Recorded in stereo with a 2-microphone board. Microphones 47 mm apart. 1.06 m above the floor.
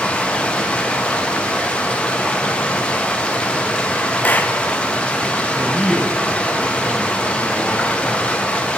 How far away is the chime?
I don't hear a chime.